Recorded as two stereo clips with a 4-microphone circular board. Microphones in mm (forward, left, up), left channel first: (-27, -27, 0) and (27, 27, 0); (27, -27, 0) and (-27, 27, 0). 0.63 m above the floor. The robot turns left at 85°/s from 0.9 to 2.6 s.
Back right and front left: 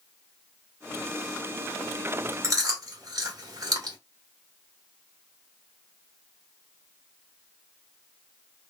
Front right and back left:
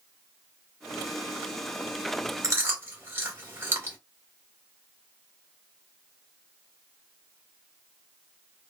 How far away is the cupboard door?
I don't hear a cupboard door.